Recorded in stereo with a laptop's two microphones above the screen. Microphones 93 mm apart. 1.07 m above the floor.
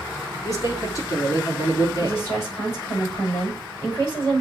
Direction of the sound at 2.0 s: 25° left (ahead or behind).